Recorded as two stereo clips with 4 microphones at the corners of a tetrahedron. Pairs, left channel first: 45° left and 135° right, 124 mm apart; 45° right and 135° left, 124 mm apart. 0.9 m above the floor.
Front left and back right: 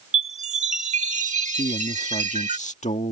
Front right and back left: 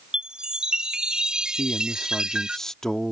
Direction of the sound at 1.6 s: 40° left.